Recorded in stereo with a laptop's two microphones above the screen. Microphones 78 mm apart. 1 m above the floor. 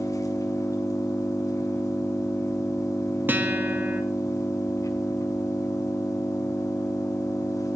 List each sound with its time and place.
0.0 s an engine running: 45° left (ahead or behind), 7 m
3.3 s a guitar: 25° right (ahead or behind), 1.7 m